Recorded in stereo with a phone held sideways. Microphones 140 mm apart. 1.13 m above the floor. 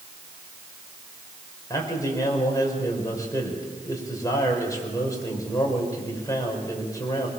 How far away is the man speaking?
About 5.5 m.